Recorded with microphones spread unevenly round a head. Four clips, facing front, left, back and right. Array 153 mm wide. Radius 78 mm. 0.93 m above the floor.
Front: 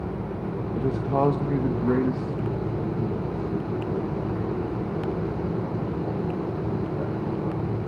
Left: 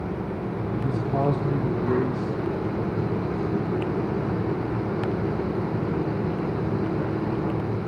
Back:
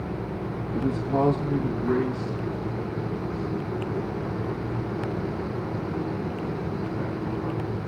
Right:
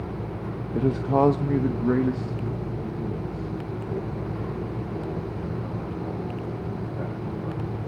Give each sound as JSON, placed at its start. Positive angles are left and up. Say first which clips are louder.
{"t": 0.8, "sound": "a man speaking", "louder": "right 6 dB, even", "azimuth_deg": -115, "distance_m": 0.9}